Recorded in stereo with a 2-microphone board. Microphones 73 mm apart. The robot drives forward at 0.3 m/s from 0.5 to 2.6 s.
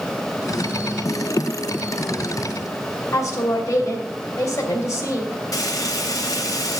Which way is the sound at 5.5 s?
55° left (ahead or behind).